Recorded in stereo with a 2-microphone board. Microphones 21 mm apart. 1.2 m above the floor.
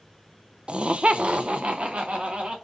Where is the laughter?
45° right (ahead or behind), 0.5 m; by 2.5 s 60° right (ahead or behind), 2.0 m.